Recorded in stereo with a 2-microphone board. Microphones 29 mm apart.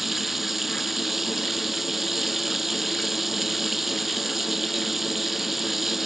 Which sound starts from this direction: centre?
Running water, at 0.0 s.